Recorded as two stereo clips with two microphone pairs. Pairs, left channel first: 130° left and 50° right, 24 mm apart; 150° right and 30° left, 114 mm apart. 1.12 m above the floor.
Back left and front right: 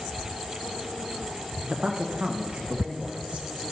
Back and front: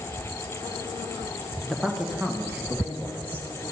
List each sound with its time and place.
1.6 s a man speaking: 65° right, 0.9 m; by 3.5 s 35° right, 2.5 m